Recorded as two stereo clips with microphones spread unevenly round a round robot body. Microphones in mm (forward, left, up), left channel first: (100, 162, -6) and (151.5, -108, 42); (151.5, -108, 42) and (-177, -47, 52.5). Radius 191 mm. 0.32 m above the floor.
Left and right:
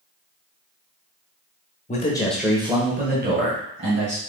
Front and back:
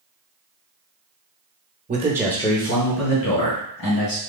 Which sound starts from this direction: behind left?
A man speaking, at 1.9 s.